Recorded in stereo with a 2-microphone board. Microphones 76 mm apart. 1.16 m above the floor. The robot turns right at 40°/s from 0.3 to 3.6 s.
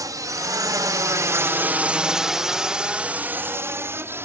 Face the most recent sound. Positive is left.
turn(degrees=-30)  # may be behind; listen again after turning